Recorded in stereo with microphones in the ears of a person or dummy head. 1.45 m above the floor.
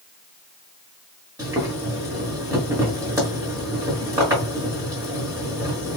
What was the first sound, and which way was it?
Boiling, 15° right (ahead or behind).